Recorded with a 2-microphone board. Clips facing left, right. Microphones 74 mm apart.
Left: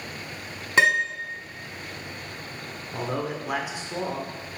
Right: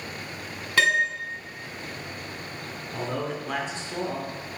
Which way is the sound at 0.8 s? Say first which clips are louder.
Left 1 dB; 20° left (ahead or behind).